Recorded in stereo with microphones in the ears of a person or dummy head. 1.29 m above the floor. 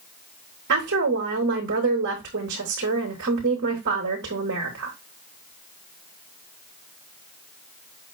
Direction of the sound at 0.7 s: 55° right (ahead or behind).